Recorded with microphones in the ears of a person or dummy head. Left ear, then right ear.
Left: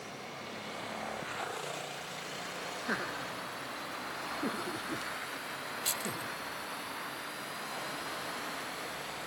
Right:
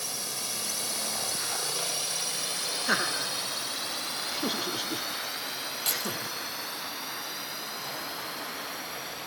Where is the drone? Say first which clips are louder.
Right 9 dB; 80° right; by 9.3 s 15° right (ahead or behind).